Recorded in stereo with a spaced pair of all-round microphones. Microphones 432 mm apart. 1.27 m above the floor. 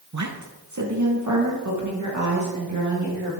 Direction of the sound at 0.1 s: 40° right (ahead or behind).